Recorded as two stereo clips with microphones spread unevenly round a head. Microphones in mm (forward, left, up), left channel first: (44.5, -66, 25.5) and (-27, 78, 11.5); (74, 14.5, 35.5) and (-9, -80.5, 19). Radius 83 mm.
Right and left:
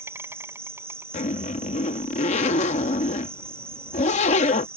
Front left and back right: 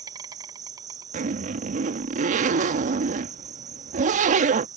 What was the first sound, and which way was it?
An insect, 175° right.